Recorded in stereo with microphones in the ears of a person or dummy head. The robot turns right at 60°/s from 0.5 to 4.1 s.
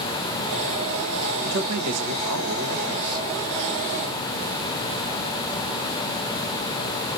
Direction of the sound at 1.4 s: 120° right.